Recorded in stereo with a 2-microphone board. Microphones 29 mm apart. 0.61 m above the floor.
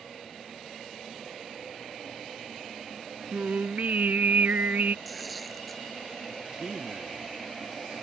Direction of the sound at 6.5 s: 30° right (ahead or behind).